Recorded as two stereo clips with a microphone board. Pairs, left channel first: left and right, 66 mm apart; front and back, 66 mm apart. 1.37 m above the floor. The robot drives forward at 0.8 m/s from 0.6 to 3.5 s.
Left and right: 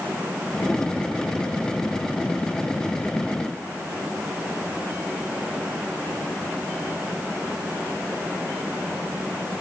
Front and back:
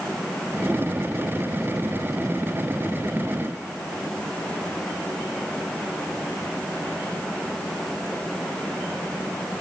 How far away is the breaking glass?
I don't hear breaking glass.